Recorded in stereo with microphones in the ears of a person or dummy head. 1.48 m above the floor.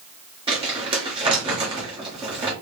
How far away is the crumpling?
About 1.2 m.